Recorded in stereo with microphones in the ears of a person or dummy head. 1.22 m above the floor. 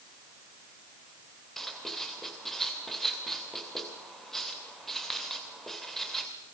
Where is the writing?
Centre (ahead or behind), 2 m.